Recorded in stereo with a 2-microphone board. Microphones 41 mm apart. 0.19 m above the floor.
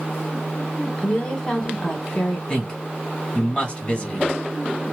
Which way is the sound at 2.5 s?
25° left (ahead or behind).